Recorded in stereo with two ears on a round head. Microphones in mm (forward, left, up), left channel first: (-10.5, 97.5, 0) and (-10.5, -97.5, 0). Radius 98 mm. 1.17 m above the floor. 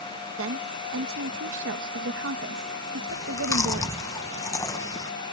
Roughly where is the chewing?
Centre.